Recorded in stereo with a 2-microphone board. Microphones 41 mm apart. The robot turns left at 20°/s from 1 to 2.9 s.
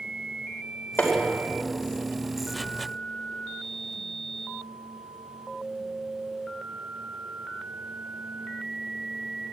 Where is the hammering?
65° left (ahead or behind), 4.5 m; by 1.2 s 60° left (ahead or behind), 4.5 m.